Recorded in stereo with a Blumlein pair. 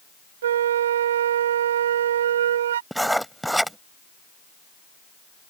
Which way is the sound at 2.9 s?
Straight ahead.